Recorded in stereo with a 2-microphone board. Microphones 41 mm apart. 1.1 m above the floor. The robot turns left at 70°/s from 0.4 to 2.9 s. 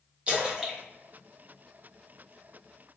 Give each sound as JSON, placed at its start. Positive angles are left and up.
{"t": 0.3, "sound": "a splash", "side_deg": -30, "distance_m": 1.1}